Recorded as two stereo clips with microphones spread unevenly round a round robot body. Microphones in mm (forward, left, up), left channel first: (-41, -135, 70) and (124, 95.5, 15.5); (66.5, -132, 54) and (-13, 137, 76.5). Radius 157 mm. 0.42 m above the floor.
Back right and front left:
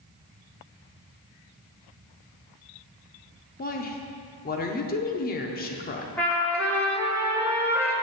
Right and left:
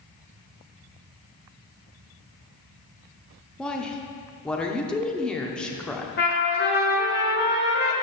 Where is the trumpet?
35° right, 1.6 m.